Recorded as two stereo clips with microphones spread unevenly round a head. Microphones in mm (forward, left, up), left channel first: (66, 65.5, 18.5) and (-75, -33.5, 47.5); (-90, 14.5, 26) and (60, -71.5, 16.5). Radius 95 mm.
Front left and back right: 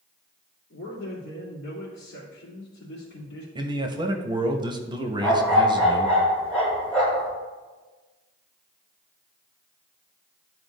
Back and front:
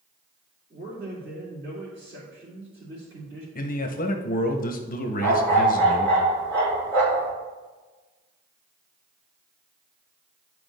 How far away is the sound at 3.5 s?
About 1.0 m.